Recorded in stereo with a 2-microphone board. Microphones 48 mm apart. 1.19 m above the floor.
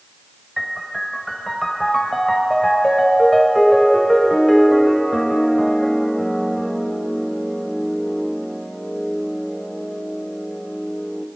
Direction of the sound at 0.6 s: 5° left (ahead or behind).